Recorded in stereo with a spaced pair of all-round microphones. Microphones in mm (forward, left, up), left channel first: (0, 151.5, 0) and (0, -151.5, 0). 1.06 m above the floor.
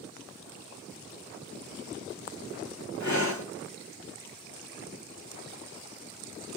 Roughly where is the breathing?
Left.